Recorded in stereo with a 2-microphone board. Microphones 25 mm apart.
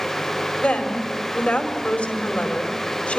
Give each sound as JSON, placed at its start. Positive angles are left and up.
{"t": 0.6, "sound": "a woman speaking", "side_deg": 75, "distance_m": 4.5}